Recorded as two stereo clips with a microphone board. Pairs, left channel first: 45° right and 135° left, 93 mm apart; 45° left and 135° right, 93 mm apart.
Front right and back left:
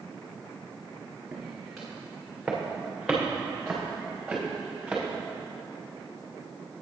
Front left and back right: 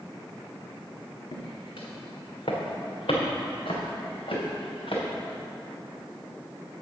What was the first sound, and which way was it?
Footsteps, 50° left.